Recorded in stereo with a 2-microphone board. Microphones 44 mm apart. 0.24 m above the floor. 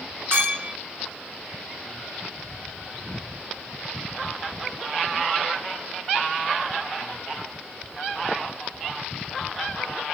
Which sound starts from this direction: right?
A clink, at 0.3 s.